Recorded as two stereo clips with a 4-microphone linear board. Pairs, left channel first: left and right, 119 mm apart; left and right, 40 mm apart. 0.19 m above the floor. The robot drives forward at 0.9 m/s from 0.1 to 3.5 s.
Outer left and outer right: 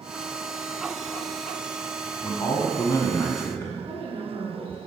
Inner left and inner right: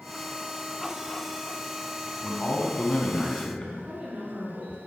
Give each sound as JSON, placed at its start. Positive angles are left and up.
{"t": 2.2, "sound": "a man speaking", "side_deg": 30, "distance_m": 1.2}
{"t": 3.8, "sound": "a woman speaking", "side_deg": -45, "distance_m": 2.0}